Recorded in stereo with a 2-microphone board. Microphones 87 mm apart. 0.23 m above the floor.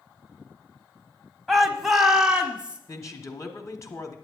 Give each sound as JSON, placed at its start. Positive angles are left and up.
{"t": 1.5, "sound": "a shout", "side_deg": 0, "distance_m": 1.0}
{"t": 2.9, "sound": "a woman speaking", "side_deg": 40, "distance_m": 1.3}